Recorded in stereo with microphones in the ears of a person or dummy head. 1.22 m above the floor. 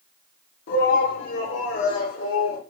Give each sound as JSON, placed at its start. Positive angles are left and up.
{"t": 0.7, "sound": "a shout", "side_deg": 65, "distance_m": 4.0}